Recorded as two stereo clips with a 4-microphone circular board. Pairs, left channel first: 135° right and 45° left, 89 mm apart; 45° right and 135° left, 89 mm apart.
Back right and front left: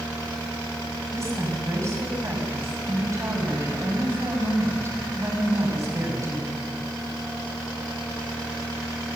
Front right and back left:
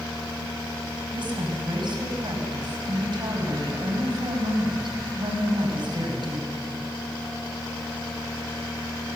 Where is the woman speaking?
100° left, 6 m.